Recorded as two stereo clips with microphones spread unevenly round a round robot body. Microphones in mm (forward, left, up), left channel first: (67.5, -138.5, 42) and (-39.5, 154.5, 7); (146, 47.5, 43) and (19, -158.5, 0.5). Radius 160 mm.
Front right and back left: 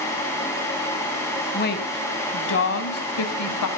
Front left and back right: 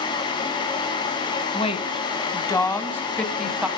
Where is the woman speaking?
10° right, 3 m; by 3.7 s 40° right, 2.5 m.